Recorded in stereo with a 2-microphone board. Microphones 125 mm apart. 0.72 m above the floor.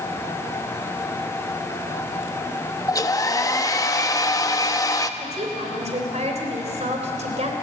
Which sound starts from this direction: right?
A woman speaking, at 5.2 s.